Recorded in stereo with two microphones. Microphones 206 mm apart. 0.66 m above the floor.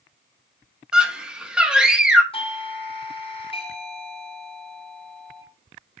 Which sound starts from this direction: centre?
A scream, at 0.9 s.